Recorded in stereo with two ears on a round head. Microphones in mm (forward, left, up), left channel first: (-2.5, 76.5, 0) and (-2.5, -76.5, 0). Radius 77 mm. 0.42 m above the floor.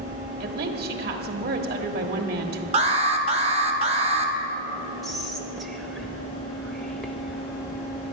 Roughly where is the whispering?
Centre.